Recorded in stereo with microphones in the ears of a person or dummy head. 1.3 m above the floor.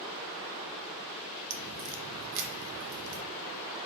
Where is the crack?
70° right (ahead or behind), 0.5 m.